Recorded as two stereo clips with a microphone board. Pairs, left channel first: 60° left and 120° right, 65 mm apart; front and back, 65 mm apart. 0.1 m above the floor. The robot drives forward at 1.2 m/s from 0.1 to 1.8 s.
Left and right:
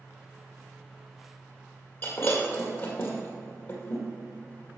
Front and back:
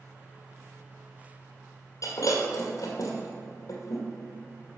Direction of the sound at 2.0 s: 15° left.